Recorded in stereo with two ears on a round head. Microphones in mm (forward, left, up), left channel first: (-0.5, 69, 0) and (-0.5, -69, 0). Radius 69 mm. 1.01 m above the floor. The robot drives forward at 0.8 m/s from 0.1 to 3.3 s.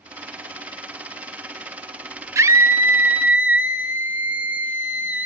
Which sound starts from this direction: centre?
A scream, at 2.4 s.